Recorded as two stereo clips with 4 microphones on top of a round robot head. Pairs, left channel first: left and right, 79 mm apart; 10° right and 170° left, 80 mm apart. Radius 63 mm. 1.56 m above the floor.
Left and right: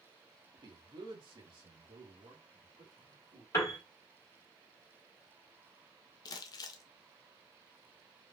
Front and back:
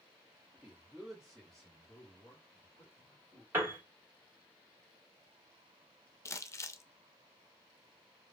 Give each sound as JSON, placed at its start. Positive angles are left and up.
{"t": 0.5, "sound": "a man speaking", "azimuth_deg": -110, "distance_m": 1.4}
{"t": 3.5, "sound": "a piano", "azimuth_deg": 125, "distance_m": 1.5}
{"t": 6.2, "sound": "crumpling", "azimuth_deg": 50, "distance_m": 0.5}